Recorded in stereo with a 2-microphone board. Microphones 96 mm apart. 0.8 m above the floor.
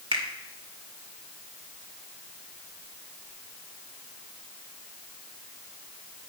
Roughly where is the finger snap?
Right.